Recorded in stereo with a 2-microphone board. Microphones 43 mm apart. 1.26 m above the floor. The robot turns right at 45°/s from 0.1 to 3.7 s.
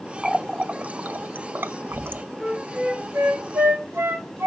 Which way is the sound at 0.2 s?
10° right (ahead or behind).